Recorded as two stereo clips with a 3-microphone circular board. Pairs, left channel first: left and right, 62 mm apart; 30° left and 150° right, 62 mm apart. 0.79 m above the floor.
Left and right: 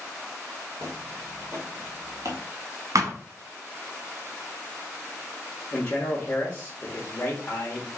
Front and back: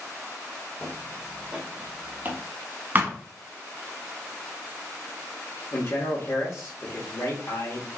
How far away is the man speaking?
About 1.4 m.